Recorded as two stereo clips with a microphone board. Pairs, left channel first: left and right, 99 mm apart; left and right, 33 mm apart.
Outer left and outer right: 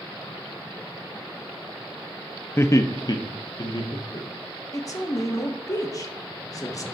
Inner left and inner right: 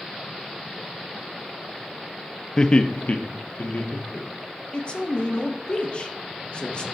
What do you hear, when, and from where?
2.6 s laughter: 25° left (ahead or behind), 0.5 m; by 4.3 s 55° left (ahead or behind), 1.2 m
4.7 s a man speaking: 35° left (ahead or behind), 1.0 m